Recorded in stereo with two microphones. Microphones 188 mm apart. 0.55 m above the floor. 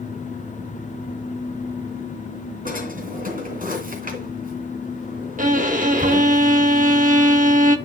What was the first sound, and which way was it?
A drawer, 45° right (ahead or behind).